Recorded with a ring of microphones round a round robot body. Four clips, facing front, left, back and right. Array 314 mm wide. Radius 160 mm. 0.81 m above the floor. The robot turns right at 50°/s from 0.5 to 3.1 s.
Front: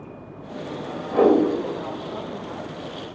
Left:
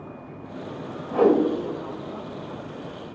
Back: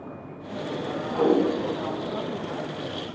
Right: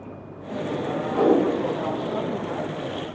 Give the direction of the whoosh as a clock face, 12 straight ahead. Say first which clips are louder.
Left 1 dB, front 5 dB; 12 o'clock.